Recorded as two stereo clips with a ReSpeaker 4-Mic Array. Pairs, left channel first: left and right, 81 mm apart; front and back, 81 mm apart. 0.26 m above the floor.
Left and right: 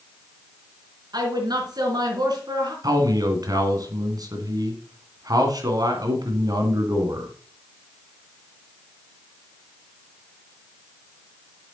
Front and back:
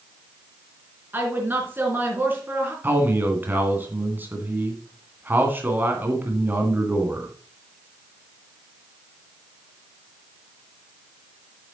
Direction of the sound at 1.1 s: 115° right.